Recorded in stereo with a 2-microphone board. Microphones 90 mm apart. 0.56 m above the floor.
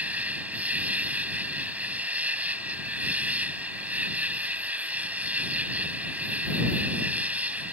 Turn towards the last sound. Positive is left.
turn(degrees=-15)  # may be behind; listen again after turning